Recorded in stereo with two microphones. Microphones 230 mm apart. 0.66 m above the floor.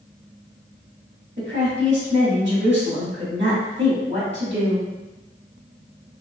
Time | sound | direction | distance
1.4 | a woman speaking | 50° right (ahead or behind) | 1.9 m